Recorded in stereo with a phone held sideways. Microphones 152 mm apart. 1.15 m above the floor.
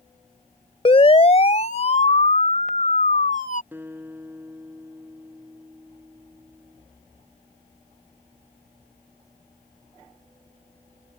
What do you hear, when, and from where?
0.8 s a siren: 40° left (ahead or behind); by 3.6 s 60° left (ahead or behind)
3.7 s a guitar: 15° right (ahead or behind)